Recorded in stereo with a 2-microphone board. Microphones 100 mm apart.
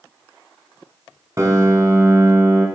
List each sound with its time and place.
1.4 s a piano: 35° right (ahead or behind), 0.7 m